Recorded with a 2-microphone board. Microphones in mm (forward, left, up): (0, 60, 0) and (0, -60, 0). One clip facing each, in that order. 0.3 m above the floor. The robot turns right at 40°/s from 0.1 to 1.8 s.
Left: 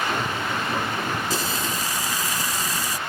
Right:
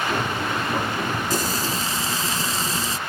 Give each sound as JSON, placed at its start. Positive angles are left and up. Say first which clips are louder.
{"t": 1.3, "sound": "frying", "louder": "right 2 dB", "side_deg": -50}